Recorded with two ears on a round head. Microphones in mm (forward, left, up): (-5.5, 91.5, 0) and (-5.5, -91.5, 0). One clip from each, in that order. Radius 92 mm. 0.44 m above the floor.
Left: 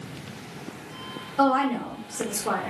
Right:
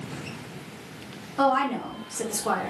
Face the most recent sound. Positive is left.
turn(degrees=-25)  # may be behind; listen again after turning